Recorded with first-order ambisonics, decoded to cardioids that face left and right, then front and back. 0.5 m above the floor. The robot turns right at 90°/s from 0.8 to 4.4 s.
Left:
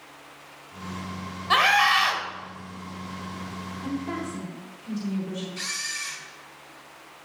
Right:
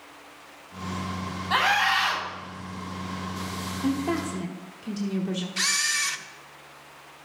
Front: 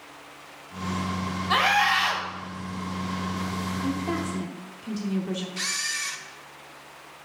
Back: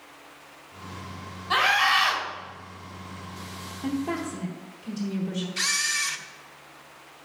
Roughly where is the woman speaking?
Right.